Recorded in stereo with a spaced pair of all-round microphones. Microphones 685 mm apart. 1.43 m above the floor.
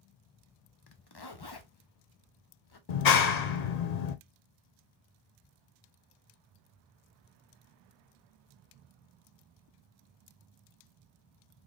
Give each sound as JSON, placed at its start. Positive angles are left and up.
{"t": 0.9, "sound": "a zipper", "side_deg": 35, "distance_m": 0.6}
{"t": 2.9, "sound": "a clap", "side_deg": 70, "distance_m": 0.7}